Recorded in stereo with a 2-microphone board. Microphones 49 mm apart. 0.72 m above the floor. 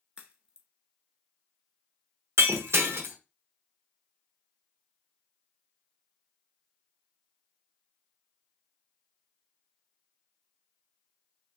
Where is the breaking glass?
60° right (ahead or behind), 0.7 m.